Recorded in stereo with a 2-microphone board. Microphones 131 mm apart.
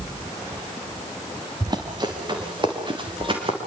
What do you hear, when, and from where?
1.6 s running footsteps: 30° right (ahead or behind), 4.5 m; by 3.6 s 40° right (ahead or behind), 6.5 m